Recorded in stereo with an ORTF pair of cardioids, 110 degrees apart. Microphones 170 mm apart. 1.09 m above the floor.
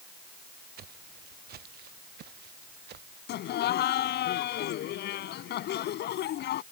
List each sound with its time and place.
0.8 s footsteps: 60° right; by 3.2 s 70° right
3.3 s laughter: 70° left